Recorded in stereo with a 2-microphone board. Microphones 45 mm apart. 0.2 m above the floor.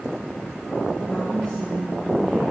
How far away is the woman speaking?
About 3 m.